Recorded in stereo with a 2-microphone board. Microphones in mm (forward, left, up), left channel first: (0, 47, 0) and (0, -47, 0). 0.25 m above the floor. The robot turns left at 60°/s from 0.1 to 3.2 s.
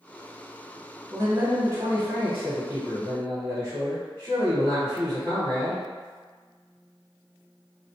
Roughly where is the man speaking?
Right.